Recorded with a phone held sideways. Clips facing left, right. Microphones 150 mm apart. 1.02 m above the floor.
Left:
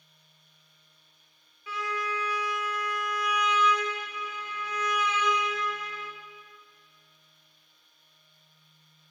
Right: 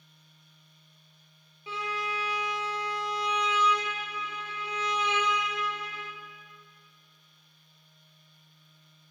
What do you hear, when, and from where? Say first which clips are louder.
1.7 s a violin: left 1 dB; 30° right (ahead or behind), 0.9 m